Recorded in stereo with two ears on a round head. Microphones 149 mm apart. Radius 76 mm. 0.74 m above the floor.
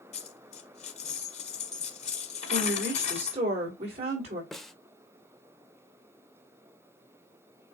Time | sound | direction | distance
0.1 | a dropped coin | 40° left (ahead or behind) | 1.1 m
2.5 | a woman speaking | 35° right (ahead or behind) | 3 m
4.5 | a snare drum | centre (ahead or behind) | 0.5 m